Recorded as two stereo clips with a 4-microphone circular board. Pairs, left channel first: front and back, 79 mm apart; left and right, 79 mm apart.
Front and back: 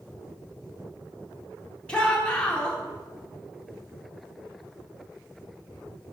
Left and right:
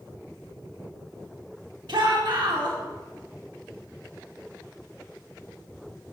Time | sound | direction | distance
1.9 | a shout | 75° right | 2.0 m